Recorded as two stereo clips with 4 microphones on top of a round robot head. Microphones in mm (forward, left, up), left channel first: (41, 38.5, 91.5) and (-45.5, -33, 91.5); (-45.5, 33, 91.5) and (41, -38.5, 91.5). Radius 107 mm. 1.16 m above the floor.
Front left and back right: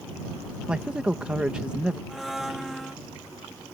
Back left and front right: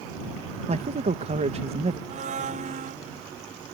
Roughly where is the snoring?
I don't hear snoring.